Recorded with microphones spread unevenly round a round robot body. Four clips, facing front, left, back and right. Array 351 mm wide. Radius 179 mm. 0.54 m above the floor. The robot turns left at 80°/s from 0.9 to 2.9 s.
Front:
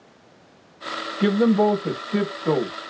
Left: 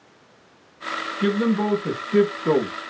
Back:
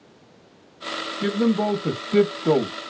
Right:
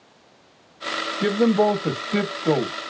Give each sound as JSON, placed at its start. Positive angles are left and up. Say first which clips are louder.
{"t": 1.2, "sound": "a man speaking", "louder": "right 3 dB, front 4 dB", "azimuth_deg": -65, "distance_m": 0.8}